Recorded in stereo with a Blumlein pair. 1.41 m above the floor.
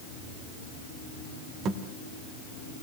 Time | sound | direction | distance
1.6 | a thud | 30° right | 2.5 m